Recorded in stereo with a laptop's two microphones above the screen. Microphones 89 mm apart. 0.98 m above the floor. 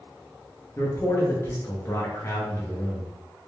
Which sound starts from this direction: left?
A man speaking, at 0.8 s.